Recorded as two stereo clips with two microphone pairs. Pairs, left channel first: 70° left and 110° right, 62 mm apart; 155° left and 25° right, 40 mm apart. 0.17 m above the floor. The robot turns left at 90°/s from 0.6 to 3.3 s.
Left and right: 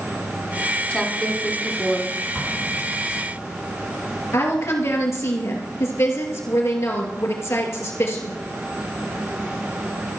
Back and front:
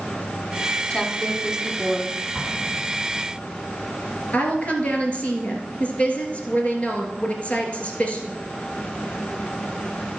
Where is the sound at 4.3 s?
105° left, 2.5 m.